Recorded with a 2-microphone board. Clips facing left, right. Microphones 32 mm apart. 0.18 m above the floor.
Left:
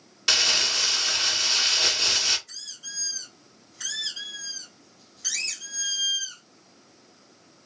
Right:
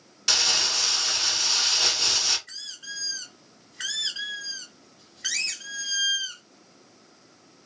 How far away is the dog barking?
No dog barking in this recording.